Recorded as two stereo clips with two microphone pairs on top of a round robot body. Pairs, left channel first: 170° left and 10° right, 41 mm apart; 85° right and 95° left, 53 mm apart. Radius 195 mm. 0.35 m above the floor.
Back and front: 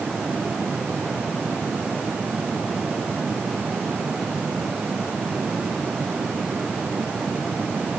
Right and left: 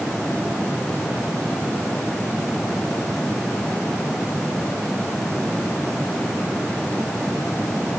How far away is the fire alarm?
I don't hear a fire alarm.